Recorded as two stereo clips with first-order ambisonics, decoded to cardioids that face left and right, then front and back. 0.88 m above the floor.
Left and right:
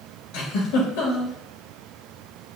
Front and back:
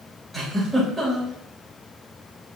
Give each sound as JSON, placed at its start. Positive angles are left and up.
{"t": 0.3, "sound": "a giggle", "azimuth_deg": 85, "distance_m": 3.0}